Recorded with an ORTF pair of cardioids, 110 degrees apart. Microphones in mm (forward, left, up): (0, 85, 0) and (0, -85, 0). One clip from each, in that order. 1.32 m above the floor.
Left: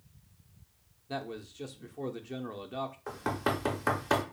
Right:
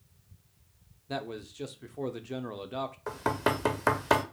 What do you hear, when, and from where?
1.1 s a man speaking: 20° right, 0.5 m
3.1 s knocking: 25° right, 0.7 m